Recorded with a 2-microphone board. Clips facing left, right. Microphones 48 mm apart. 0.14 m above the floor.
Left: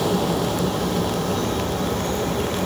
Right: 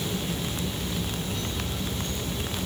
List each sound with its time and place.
0.0 s an aircraft: 70° left (ahead or behind); by 2.7 s 55° left (ahead or behind)